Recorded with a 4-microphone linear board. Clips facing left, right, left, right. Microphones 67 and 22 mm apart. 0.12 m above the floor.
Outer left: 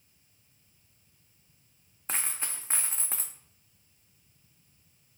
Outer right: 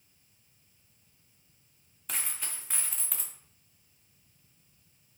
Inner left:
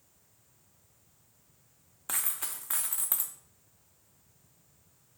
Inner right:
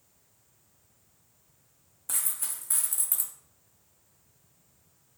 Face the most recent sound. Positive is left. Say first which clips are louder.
# outer left 3 dB, inner right 1 dB
turn(degrees=30)  # may be behind; listen again after turning